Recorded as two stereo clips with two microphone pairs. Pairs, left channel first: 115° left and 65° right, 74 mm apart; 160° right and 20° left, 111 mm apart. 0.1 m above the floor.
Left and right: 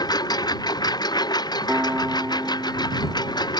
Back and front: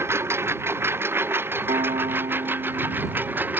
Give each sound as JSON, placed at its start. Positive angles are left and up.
{"t": 0.0, "sound": "a lawn mower", "azimuth_deg": 90}
{"t": 1.7, "sound": "a piano", "azimuth_deg": 5}